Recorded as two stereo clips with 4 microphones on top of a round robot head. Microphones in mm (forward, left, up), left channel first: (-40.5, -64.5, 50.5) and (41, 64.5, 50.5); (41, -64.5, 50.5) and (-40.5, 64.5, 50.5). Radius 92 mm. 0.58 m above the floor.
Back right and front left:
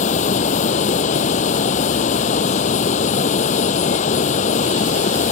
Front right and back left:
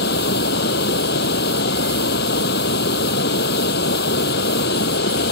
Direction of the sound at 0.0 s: 75° right.